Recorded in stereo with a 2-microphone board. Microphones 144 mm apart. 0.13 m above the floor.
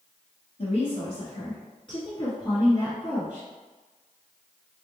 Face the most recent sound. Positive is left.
turn(degrees=15)  # may be behind; listen again after turning